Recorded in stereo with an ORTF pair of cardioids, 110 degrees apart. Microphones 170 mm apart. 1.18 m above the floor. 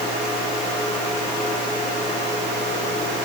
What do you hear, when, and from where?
Only background noise.